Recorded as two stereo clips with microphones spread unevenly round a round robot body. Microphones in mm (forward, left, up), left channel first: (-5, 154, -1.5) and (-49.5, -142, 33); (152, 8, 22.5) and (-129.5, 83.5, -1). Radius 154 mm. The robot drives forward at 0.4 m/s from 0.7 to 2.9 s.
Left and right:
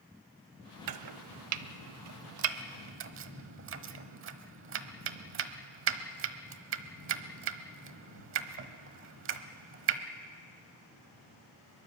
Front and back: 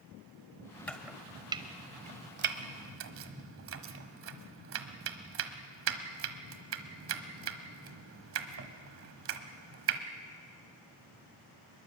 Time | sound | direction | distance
0.9 | chopping | 95° right | 0.7 m